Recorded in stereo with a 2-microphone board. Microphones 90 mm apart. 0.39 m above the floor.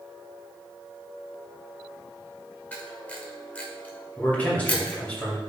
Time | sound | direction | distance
2.7 | a camera shutter | 15° left (ahead or behind) | 1.2 m
4.2 | a man speaking | 15° left (ahead or behind) | 2 m